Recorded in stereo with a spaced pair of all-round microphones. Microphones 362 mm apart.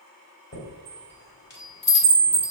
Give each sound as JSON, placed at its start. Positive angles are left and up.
{"t": 0.5, "sound": "a chime", "side_deg": 30, "distance_m": 1.5}